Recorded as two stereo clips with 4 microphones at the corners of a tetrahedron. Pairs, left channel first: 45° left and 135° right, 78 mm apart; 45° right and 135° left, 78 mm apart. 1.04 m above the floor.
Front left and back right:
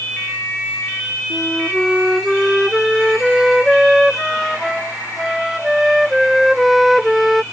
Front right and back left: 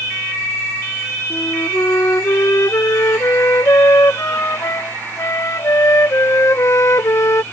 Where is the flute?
45° right.